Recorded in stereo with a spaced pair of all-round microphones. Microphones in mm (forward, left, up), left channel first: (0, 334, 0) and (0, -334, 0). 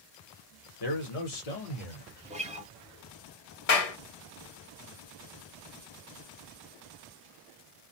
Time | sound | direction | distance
0.8 | a man speaking | 35° left (ahead or behind) | 1.0 m
2.2 | a guitar | 10° right (ahead or behind) | 0.5 m
3.7 | a clap | 60° left (ahead or behind) | 0.7 m